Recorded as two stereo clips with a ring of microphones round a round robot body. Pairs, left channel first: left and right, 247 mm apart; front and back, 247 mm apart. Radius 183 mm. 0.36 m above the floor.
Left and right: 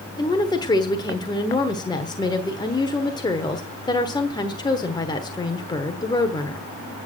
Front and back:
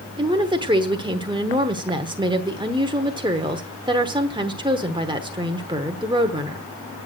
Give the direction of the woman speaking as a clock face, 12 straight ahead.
7 o'clock.